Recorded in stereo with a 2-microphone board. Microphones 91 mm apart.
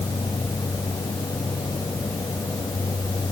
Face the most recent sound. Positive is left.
No sound to turn to.